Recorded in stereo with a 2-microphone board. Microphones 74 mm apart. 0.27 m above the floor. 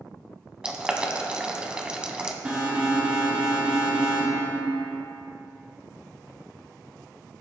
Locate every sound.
0.6 s boiling: 15° right (ahead or behind), 1.2 m
2.5 s an alarm: 15° right (ahead or behind), 3.5 m